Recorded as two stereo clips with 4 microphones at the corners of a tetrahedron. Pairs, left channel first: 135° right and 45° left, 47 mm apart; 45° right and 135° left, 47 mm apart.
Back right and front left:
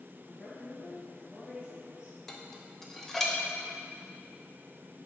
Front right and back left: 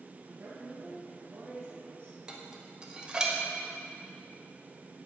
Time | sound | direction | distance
0.3 | a woman speaking | 160° left | 0.7 m
2.3 | dishes clattering | 165° left | 0.7 m